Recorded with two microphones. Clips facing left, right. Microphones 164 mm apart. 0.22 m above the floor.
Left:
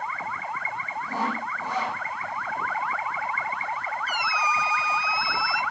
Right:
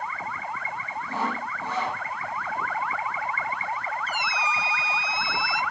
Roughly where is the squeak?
Right.